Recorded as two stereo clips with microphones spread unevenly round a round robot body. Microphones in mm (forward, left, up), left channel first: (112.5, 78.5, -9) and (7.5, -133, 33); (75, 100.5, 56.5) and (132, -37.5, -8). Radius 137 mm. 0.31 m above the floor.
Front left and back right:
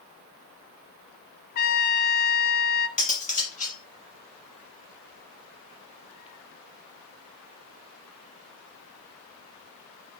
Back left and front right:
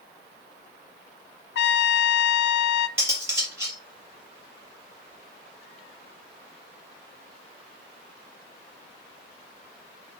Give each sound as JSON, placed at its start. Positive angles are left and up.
{"t": 1.6, "sound": "a trumpet", "azimuth_deg": 100, "distance_m": 0.6}
{"t": 3.0, "sound": "cutlery clinking", "azimuth_deg": 5, "distance_m": 4.5}